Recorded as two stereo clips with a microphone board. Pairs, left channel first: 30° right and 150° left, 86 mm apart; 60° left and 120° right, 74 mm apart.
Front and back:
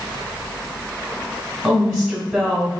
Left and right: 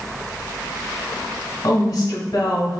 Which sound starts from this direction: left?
A woman speaking, at 1.6 s.